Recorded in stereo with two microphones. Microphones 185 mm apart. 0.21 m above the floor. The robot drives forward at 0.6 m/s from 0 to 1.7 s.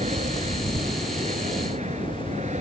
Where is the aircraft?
40° right (ahead or behind).